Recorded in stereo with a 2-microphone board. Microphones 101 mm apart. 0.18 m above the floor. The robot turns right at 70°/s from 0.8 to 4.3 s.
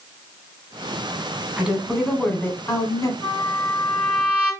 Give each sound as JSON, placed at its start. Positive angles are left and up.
{"t": 1.6, "sound": "a woman speaking", "azimuth_deg": -25, "distance_m": 1.3}
{"t": 3.2, "sound": "a trumpet", "azimuth_deg": 125, "distance_m": 2.0}